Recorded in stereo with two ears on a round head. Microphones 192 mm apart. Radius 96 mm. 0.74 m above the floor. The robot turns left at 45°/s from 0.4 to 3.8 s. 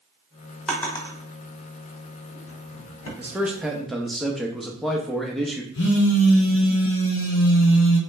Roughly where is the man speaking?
Centre.